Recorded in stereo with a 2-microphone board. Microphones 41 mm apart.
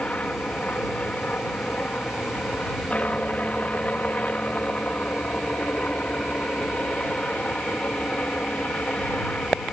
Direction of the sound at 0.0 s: 35° left (ahead or behind).